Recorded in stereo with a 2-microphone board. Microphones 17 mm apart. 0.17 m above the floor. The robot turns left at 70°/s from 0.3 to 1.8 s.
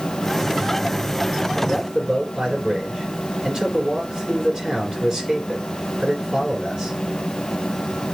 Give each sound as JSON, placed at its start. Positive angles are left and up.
{"t": 1.6, "sound": "a man speaking", "side_deg": -40, "distance_m": 2.0}